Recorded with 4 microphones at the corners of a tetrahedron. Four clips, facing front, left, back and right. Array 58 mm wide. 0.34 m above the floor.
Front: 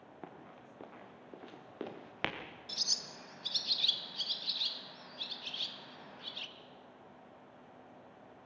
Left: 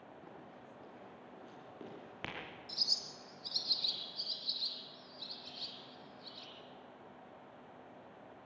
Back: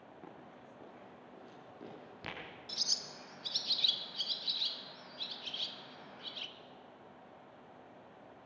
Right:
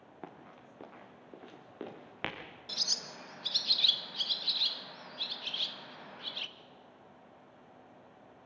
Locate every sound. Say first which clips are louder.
0.2 s running footsteps: right 3 dB, front 3 dB; 65° right, 3.5 m; by 2.4 s 20° right, 3.5 m
2.7 s a bird: right 4 dB, front 1 dB; 90° right, 0.9 m